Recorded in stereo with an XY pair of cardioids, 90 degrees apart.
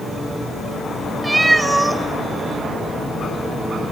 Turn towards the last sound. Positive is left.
turn(degrees=-15)